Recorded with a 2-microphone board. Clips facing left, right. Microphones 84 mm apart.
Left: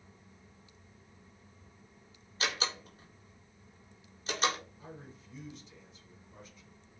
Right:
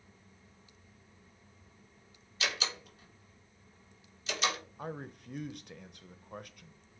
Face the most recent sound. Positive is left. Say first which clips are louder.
# right 8 dB
turn(degrees=-60)  # may be behind; listen again after turning